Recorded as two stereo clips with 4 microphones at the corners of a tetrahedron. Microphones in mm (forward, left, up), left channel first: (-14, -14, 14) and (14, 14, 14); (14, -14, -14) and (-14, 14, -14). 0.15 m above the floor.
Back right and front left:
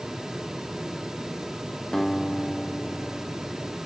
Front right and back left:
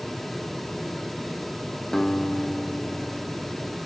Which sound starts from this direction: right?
A guitar, at 1.9 s.